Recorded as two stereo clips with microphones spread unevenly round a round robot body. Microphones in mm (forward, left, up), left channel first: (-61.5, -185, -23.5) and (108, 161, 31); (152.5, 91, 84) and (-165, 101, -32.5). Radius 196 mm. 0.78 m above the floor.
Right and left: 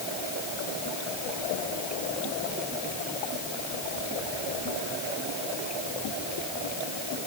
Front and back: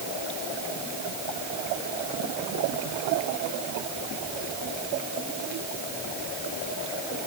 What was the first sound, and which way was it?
Only background noise.